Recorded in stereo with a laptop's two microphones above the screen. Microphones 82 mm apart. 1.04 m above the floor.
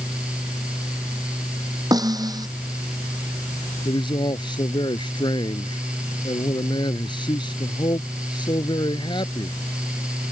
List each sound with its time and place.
0.0 s a fan: 15° right (ahead or behind)
1.9 s a snare drum: 50° right (ahead or behind)
3.9 s a man speaking: 65° left (ahead or behind)